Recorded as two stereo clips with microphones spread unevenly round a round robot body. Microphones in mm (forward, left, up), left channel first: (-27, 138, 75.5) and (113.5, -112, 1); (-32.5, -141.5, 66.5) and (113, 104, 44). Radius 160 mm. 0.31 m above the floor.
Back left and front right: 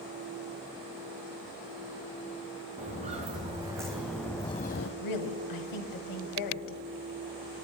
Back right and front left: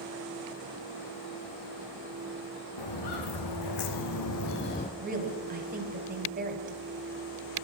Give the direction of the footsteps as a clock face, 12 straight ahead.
4 o'clock.